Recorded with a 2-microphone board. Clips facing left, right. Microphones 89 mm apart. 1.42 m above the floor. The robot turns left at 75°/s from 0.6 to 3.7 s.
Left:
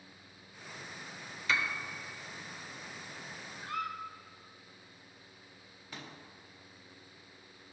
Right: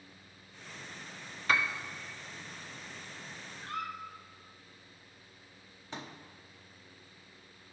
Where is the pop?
25° right (ahead or behind), 0.8 m.